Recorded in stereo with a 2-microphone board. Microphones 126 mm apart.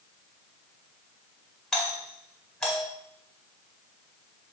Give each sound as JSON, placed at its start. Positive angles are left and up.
{"t": 1.7, "sound": "a doorbell", "side_deg": 5, "distance_m": 1.5}